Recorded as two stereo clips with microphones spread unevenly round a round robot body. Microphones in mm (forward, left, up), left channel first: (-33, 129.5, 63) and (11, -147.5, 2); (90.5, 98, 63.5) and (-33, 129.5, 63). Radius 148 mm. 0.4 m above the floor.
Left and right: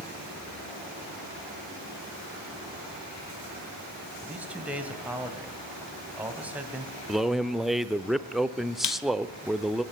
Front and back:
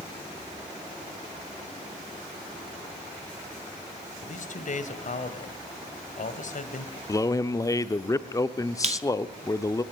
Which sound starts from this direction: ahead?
A man speaking, at 4.2 s.